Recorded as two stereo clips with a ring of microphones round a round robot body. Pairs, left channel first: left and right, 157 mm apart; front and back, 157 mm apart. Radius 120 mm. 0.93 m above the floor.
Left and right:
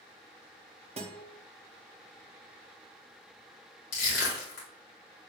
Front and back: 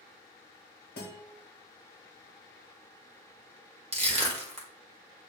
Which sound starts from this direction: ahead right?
A guitar, at 1.0 s.